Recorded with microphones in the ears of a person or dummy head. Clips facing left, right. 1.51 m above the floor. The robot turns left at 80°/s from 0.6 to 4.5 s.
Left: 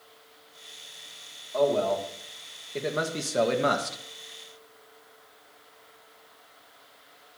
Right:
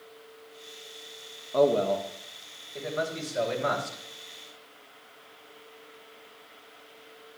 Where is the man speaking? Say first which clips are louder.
Right 1 dB; 130° right, 1.7 m; by 4.0 s 35° left, 1.7 m.